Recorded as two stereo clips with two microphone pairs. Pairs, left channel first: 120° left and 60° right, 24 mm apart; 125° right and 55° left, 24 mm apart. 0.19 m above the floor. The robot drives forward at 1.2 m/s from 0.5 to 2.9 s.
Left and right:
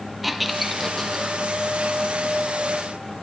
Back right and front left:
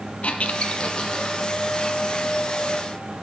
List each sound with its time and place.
0.2 s a squeak: 150° right, 0.5 m; by 1.4 s 170° right, 1.5 m